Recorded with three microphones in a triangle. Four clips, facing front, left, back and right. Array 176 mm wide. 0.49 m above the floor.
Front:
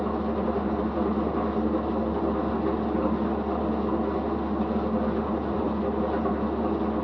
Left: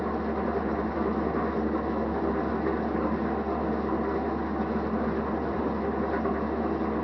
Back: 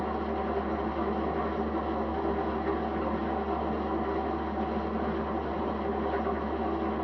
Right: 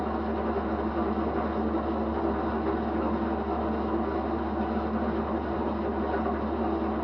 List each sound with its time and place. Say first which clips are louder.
0.0 s an engine running: even, front 4 dB; 35° left, 2.5 m